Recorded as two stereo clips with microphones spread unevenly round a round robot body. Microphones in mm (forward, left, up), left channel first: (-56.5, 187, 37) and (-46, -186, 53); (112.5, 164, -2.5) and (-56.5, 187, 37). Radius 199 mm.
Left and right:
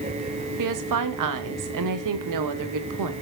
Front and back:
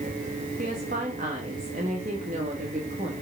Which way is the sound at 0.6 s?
120° right.